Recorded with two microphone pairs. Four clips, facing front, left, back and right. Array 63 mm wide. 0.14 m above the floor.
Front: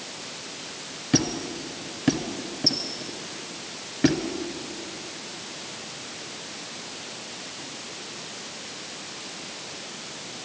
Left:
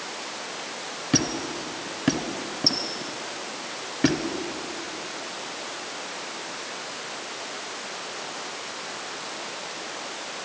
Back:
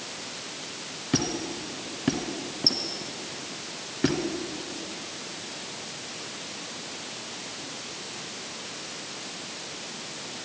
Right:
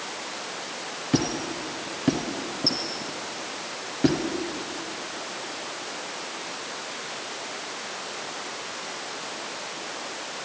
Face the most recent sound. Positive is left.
turn(degrees=80)